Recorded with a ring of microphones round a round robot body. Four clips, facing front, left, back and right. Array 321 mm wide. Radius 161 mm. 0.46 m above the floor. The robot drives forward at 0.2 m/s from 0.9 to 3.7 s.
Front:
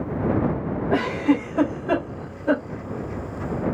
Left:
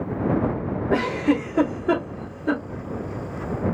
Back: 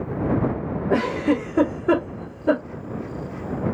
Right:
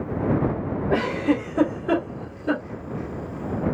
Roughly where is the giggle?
Behind left.